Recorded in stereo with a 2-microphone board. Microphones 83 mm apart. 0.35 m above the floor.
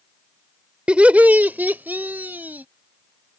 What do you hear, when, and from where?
0.9 s laughter: 15° right (ahead or behind); by 2.6 s 20° right (ahead or behind)